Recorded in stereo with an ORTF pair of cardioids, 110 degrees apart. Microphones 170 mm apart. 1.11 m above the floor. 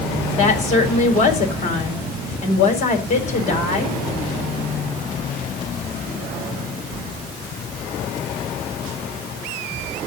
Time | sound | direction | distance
0.3 | a woman speaking | 45° left | 4.5 m